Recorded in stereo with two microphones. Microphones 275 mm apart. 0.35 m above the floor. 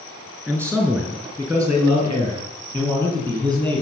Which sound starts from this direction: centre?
A man speaking, at 0.5 s.